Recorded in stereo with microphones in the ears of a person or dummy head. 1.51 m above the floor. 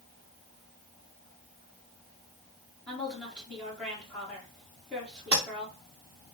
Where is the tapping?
10° right (ahead or behind), 0.6 m.